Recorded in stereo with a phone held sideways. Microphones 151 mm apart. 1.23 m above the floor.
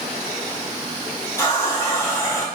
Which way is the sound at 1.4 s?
20° left (ahead or behind).